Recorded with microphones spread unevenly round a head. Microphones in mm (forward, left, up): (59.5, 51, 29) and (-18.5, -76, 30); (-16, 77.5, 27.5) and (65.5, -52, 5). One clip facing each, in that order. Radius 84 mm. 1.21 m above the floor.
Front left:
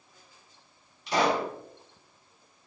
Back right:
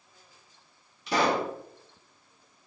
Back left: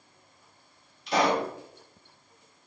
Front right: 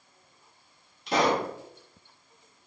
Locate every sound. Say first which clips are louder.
1.1 s a pop: even, even; 110° right, 1.7 m